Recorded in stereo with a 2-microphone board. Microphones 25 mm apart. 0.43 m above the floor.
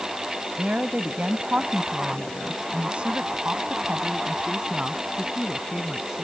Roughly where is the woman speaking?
Right.